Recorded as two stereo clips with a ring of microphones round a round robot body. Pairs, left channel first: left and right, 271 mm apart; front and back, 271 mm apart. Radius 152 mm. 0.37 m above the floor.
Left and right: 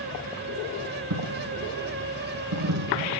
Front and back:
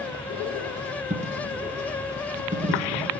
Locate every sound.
1.1 s a dropped coin: 115° right, 1.4 m